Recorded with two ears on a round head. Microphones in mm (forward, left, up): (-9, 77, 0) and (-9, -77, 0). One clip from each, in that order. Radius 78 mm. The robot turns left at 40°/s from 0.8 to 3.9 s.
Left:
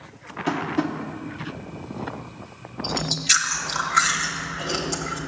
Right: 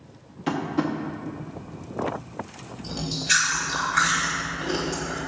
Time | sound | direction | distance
0.5 | tapping | 5° left (ahead or behind) | 0.7 m
2.8 | chewing | 85° left | 1.1 m